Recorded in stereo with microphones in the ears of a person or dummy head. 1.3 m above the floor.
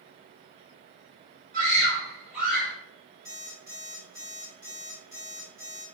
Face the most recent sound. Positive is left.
turn(degrees=-20)  # may be behind; listen again after turning